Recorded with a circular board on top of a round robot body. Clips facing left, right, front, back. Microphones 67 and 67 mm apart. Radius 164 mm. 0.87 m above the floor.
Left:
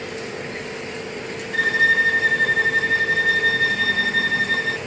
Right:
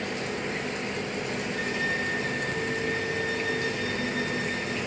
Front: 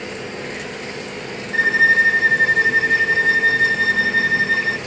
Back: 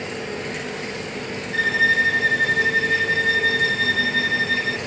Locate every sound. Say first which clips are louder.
1.5 s a violin: left 14 dB, front 4 dB; 65° left, 0.5 m